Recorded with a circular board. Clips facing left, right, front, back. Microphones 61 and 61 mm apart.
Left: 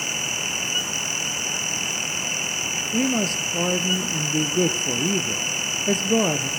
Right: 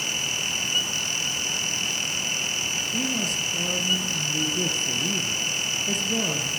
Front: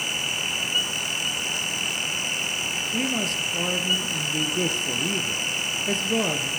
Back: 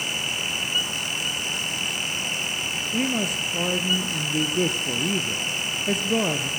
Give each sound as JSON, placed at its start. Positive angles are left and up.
{"t": 2.9, "sound": "a man speaking", "azimuth_deg": 100, "distance_m": 1.8}